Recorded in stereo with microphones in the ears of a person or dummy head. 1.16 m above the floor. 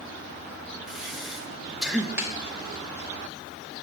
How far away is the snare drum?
About 1.1 m.